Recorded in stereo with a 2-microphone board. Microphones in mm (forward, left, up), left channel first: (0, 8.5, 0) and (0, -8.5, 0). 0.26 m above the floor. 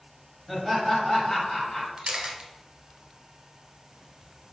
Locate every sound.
0.5 s laughter: 10° right (ahead or behind), 1.1 m; by 1.9 s 20° left (ahead or behind), 1.5 m
2.0 s a camera shutter: 70° right (ahead or behind), 0.8 m